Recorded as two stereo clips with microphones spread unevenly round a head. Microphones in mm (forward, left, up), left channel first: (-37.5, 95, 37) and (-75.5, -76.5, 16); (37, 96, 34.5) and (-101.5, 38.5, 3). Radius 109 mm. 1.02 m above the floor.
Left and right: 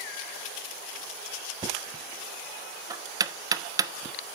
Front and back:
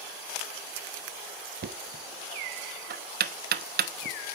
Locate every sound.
1.6 s knocking: 175° right, 1.0 m